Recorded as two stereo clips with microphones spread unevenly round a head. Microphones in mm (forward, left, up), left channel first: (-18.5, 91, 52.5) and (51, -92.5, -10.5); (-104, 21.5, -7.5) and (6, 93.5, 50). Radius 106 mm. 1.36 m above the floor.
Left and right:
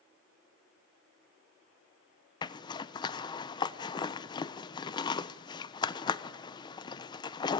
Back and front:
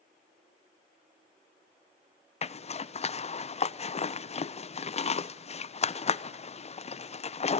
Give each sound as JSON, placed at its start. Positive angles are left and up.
{"t": 2.4, "sound": "a zipper", "azimuth_deg": -175, "distance_m": 0.9}